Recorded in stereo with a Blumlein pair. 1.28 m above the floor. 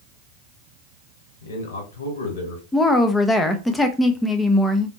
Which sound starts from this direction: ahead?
A woman speaking, at 2.7 s.